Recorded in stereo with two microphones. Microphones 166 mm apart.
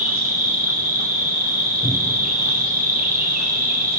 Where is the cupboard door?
35° right (ahead or behind), 2.5 m.